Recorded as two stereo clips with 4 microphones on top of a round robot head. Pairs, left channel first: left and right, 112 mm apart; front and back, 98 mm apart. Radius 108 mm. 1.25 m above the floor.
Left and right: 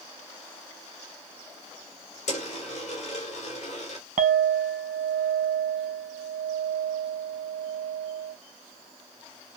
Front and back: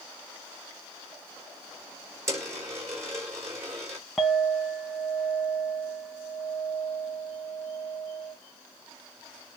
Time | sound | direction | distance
2.3 | a dropped coin | 125° left | 2.5 m
4.2 | a clink | 85° right | 0.9 m